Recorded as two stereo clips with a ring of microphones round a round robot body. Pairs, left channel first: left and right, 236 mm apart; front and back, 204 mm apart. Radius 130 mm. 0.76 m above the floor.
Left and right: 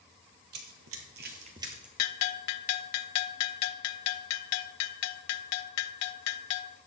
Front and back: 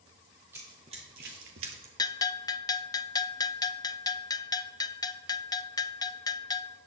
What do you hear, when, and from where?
0.5 s running footsteps: 100° right, 1.5 m; by 1.9 s 175° right, 1.2 m
2.0 s a bell: 75° left, 0.5 m